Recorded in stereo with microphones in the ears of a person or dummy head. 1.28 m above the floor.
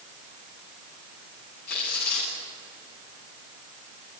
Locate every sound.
1.7 s tearing paper: 60° left (ahead or behind), 8 m